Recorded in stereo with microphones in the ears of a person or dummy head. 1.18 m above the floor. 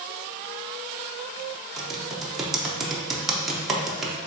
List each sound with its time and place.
1.8 s typing on a keyboard: centre (ahead or behind), 0.6 m